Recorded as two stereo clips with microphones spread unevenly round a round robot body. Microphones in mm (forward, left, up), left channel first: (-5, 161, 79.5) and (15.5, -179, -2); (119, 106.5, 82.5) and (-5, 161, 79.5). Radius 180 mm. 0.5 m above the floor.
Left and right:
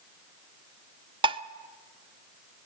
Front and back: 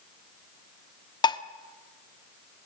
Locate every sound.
1.2 s dishes clattering: 50° right, 0.7 m